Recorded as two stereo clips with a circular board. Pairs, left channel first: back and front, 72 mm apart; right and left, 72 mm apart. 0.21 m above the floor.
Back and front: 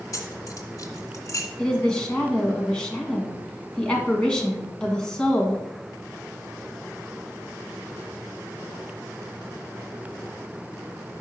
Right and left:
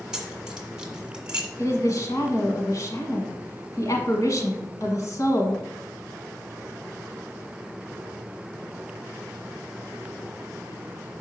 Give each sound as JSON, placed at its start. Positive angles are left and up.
{"t": 0.1, "sound": "keys jangling", "azimuth_deg": 170, "distance_m": 1.3}
{"t": 1.6, "sound": "a woman speaking", "azimuth_deg": -105, "distance_m": 1.6}